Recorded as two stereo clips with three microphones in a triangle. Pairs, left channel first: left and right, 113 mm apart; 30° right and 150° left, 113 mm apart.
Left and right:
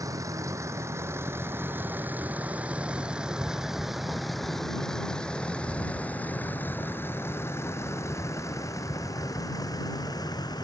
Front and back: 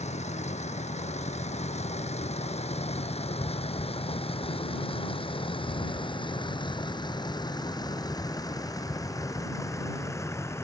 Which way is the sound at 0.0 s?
30° right.